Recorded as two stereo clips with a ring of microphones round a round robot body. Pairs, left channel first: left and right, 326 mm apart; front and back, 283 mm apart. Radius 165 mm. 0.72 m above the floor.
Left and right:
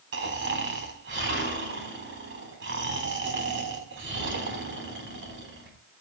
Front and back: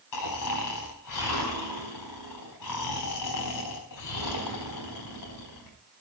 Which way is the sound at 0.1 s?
35° right.